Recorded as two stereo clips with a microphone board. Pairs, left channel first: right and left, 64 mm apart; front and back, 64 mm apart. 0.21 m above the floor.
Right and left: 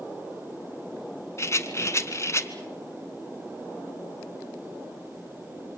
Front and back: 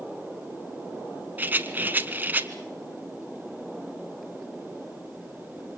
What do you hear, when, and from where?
1.4 s a rattle: 125° right, 1.4 m